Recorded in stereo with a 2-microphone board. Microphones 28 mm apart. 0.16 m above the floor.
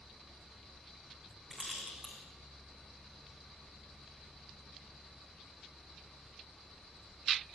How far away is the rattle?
About 5.5 m.